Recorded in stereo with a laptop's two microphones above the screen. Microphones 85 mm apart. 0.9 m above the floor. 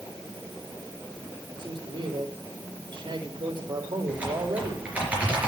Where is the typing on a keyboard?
15° right (ahead or behind), 4 m.